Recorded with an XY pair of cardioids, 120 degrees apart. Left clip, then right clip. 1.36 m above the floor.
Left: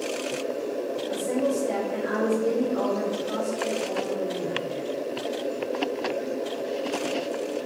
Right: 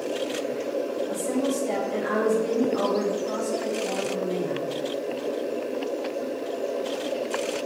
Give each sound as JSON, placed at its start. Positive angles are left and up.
{"t": 1.1, "sound": "a woman speaking", "azimuth_deg": -40, "distance_m": 1.1}